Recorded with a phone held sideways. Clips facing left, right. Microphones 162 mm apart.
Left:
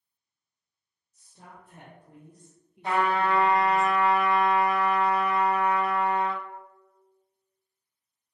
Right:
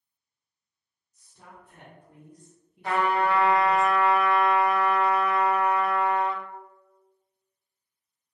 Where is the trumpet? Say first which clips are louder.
Right 1 dB; 25° left (ahead or behind), 1.0 m.